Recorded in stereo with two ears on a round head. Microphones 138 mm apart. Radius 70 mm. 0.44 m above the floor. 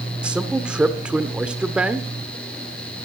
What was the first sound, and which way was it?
A man speaking, 5° right (ahead or behind).